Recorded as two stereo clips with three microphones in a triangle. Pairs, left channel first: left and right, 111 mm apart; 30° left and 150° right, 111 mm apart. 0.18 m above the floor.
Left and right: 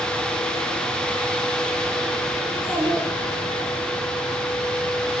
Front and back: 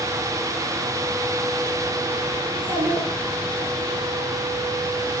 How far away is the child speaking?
About 2.5 m.